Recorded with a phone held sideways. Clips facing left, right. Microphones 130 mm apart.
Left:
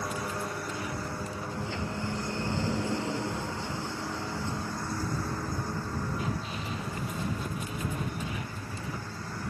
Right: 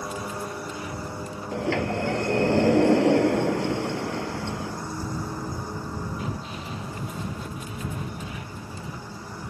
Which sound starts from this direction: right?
A sliding door, at 1.5 s.